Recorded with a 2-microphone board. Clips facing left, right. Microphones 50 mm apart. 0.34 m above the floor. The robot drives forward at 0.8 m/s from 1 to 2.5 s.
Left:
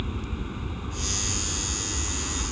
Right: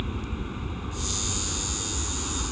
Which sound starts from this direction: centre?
An aircraft, at 0.0 s.